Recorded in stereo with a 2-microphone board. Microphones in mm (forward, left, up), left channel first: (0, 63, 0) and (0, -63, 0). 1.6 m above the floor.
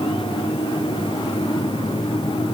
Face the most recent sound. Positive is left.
No sound to turn to.